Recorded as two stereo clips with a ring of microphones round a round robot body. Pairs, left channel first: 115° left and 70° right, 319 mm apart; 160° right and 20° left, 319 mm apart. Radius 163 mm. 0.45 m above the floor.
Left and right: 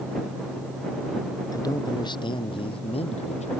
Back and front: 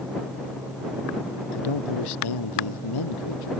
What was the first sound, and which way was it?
A man speaking, 170° right.